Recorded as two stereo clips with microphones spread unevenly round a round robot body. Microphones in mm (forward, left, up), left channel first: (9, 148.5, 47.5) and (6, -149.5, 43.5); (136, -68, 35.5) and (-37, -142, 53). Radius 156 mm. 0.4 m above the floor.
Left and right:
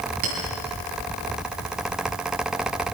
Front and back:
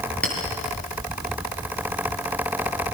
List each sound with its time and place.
0.2 s a clink: 60° right, 7 m